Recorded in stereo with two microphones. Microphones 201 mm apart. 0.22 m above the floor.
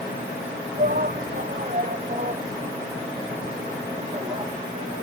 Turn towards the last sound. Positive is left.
turn(degrees=-30)  # may be behind; listen again after turning